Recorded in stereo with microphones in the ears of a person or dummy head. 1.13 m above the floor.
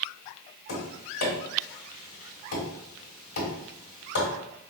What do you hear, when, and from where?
0.7 s tapping: 55° left (ahead or behind), 1.4 m